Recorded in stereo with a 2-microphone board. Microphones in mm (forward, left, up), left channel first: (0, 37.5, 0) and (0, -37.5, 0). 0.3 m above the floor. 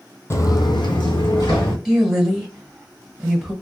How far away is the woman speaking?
About 1.6 m.